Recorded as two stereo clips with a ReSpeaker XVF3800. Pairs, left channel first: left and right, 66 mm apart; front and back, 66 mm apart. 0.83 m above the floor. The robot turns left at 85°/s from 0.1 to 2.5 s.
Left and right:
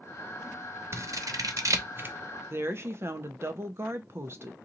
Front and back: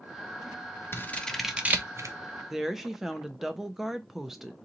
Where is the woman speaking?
95° right, 0.6 m.